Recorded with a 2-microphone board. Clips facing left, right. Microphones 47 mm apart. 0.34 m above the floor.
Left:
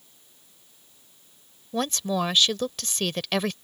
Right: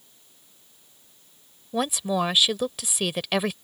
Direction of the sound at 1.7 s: 10° right (ahead or behind).